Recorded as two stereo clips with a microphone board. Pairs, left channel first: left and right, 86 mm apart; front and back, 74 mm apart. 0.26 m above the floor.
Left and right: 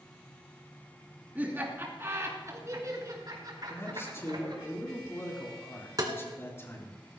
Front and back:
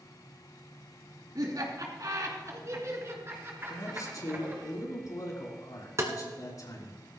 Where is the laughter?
160° right, 3 m; by 4.7 s 115° right, 4.5 m.